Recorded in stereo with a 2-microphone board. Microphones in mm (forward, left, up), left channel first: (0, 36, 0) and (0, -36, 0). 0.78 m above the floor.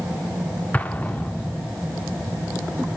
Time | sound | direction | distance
0.7 | an explosion | 25° left (ahead or behind) | 0.8 m